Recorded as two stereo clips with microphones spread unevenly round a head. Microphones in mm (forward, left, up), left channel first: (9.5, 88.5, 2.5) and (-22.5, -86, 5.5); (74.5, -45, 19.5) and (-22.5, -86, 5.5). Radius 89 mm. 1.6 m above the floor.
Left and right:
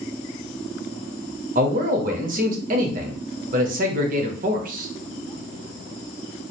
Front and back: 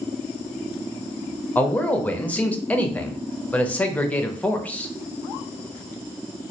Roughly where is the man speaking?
Ahead right.